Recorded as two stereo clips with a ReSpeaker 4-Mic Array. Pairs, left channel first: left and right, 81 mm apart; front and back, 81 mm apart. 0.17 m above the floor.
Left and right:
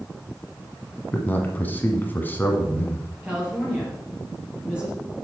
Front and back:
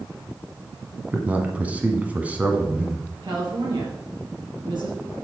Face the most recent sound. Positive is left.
turn(degrees=-165)